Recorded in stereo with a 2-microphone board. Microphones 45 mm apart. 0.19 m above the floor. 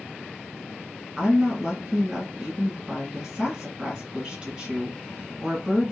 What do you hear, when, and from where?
1.2 s a woman speaking: 10° right (ahead or behind), 1.6 m